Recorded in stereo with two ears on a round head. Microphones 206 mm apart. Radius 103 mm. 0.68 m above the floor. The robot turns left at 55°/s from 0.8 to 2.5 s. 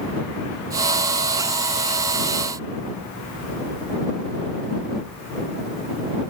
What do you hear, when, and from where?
Only background noise.